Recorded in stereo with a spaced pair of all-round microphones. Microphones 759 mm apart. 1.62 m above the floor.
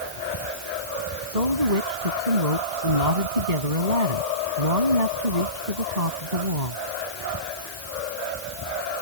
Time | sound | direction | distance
1.3 | a woman speaking | 60° right (ahead or behind) | ?